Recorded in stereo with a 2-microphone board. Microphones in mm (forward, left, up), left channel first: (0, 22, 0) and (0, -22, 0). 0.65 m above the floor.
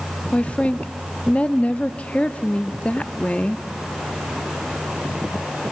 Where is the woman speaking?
30° left (ahead or behind), 0.8 m.